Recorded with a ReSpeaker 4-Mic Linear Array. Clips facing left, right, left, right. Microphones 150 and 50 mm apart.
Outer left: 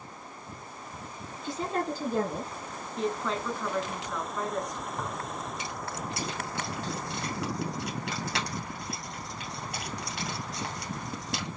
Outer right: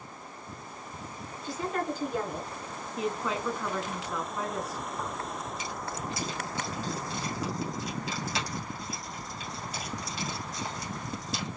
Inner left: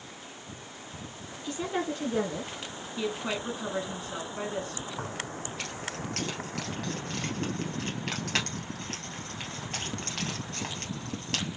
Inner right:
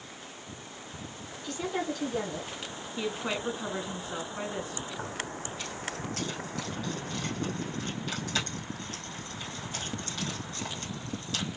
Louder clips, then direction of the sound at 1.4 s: Outer left 1 dB, inner left 1 dB; 20° left (ahead or behind).